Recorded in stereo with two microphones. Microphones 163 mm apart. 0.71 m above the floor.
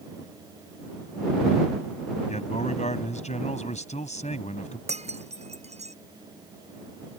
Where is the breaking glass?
40° right (ahead or behind).